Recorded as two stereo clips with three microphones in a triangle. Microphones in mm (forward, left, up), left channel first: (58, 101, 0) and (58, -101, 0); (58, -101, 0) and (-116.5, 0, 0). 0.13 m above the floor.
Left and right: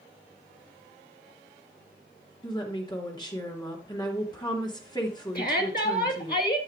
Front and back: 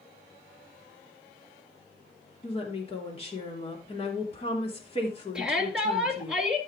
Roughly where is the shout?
Ahead left.